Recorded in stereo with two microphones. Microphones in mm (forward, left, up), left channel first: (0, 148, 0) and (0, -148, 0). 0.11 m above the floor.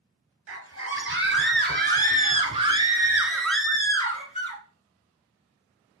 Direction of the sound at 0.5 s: 50° right (ahead or behind).